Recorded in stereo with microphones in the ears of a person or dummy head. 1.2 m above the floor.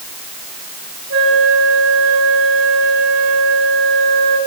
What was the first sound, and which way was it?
A flute, 70° right (ahead or behind).